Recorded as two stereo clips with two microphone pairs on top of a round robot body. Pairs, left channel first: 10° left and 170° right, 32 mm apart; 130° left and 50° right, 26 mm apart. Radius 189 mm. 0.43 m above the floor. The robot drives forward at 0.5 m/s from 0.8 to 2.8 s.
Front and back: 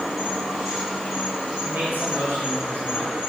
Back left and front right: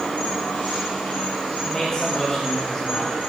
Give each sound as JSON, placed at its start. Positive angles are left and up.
{"t": 0.0, "sound": "an insect", "azimuth_deg": 110, "distance_m": 3.0}
{"t": 1.6, "sound": "a man speaking", "azimuth_deg": 180, "distance_m": 1.4}